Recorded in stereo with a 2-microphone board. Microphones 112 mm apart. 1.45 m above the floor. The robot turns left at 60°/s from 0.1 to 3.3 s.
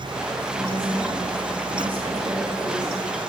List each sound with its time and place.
0.6 s a woman speaking: 40° right, 5 m; by 3.0 s 170° left, 5 m